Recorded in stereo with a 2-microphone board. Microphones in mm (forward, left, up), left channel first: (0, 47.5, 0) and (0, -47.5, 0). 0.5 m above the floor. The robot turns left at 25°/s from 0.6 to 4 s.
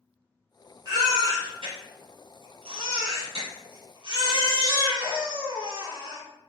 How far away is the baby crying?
About 1.5 m.